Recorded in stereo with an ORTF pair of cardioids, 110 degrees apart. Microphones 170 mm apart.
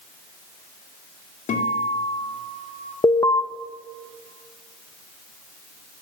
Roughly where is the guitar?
Ahead left.